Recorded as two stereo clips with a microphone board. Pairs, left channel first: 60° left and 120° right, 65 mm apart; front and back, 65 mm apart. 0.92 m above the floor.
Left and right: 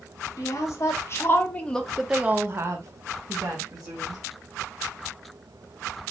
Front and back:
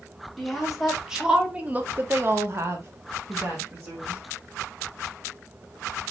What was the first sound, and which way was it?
A woman speaking, 90° left.